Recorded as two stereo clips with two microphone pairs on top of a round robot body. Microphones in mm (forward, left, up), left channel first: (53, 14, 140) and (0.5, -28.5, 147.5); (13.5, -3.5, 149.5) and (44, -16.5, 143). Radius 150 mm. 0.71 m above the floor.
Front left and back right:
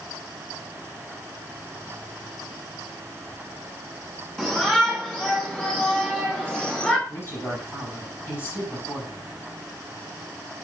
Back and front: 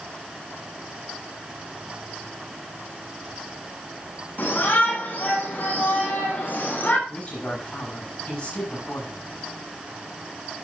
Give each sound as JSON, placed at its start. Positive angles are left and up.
{"t": 4.4, "sound": "a shout", "azimuth_deg": 120, "distance_m": 7.0}
{"t": 7.1, "sound": "a woman speaking", "azimuth_deg": 95, "distance_m": 7.5}